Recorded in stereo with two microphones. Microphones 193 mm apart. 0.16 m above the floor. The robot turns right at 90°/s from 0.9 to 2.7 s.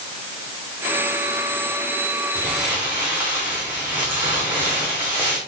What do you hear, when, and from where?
2.4 s crumpling: 160° left, 4.5 m; by 5.4 s 165° right, 4.5 m